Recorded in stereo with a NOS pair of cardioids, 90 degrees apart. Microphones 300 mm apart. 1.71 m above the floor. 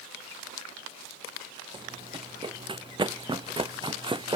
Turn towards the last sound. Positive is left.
turn(degrees=-15)